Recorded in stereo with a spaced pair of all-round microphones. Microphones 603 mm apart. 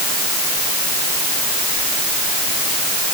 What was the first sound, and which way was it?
Only background noise.